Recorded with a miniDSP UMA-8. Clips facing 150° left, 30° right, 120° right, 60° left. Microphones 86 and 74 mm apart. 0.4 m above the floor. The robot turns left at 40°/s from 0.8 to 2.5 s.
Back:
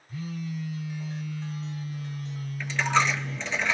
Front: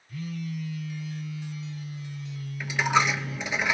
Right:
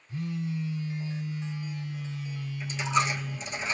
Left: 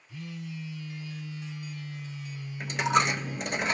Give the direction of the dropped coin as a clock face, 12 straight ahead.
10 o'clock.